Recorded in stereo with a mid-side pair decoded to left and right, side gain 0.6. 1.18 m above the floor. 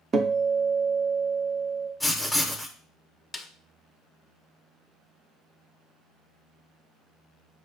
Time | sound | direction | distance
0.1 | a guitar | 35° right | 0.5 m
2.0 | writing | 5° left | 0.6 m
3.3 | a snare drum | 20° left | 0.5 m